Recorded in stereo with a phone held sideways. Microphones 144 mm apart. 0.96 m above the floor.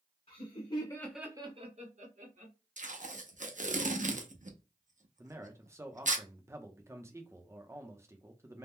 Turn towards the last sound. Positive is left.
turn(degrees=-20)  # may be behind; listen again after turning